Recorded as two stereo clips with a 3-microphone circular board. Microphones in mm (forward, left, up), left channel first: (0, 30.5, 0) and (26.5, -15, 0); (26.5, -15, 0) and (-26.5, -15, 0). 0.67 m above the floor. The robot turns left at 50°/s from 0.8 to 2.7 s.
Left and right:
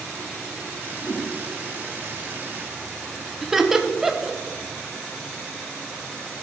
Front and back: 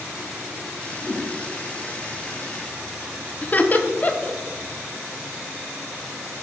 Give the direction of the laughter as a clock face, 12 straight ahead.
11 o'clock.